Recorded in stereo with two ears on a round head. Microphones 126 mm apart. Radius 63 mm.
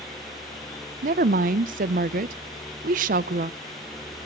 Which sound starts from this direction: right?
A woman speaking, at 1.0 s.